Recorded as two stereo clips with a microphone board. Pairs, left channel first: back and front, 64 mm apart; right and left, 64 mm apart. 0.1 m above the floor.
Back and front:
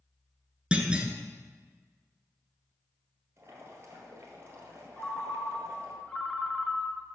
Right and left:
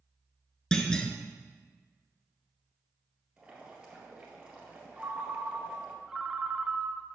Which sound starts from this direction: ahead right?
A clunk, at 0.7 s.